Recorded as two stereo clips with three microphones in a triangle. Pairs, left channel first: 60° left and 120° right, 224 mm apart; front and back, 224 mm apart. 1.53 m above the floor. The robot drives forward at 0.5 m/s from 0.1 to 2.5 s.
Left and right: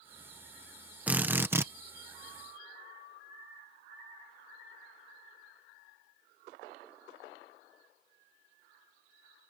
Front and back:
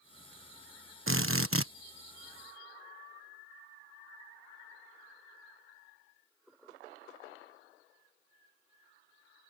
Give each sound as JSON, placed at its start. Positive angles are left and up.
{"t": 1.1, "sound": "a drill", "azimuth_deg": 155}